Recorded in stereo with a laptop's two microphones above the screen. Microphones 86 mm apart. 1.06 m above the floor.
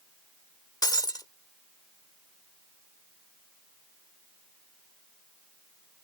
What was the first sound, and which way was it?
Breaking glass, 50° left (ahead or behind).